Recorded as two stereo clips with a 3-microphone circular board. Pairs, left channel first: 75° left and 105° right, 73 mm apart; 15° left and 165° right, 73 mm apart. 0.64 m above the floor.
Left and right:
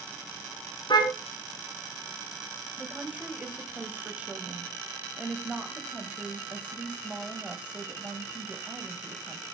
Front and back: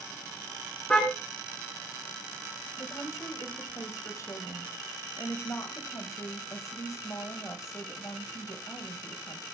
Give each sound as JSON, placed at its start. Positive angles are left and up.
{"t": 0.9, "sound": "a car horn", "azimuth_deg": 90, "distance_m": 3.5}
{"t": 2.8, "sound": "a woman speaking", "azimuth_deg": -35, "distance_m": 3.5}